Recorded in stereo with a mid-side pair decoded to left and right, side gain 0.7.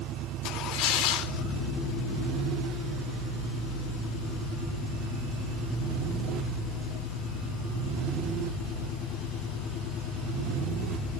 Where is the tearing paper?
65° left, 6 m.